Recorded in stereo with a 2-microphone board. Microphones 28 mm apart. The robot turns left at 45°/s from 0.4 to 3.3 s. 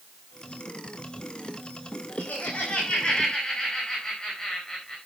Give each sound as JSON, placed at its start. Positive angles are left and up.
{"t": 2.2, "sound": "laughter", "azimuth_deg": 70, "distance_m": 5.5}